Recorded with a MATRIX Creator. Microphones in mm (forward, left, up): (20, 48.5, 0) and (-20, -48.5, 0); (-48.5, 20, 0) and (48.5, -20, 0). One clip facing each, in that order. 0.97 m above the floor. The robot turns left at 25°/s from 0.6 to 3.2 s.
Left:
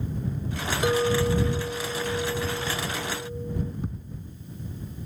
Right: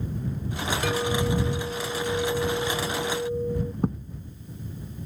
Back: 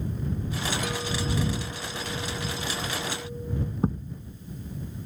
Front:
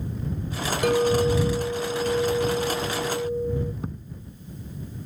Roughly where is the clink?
Ahead.